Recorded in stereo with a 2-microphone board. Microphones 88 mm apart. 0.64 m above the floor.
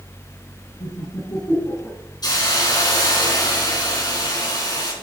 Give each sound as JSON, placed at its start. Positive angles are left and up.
{"t": 0.8, "sound": "laughter", "side_deg": 65, "distance_m": 6.0}
{"t": 2.2, "sound": "a hiss", "side_deg": 50, "distance_m": 4.5}